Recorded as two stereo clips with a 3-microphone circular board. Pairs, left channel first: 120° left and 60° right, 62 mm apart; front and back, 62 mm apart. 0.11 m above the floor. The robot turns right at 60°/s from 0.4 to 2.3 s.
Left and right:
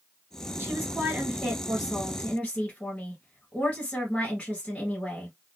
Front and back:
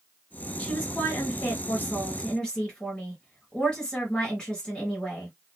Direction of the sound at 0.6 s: 40° right.